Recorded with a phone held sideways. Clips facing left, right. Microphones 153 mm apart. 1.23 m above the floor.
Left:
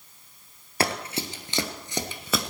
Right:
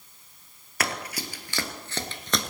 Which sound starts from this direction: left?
Running footsteps, at 0.8 s.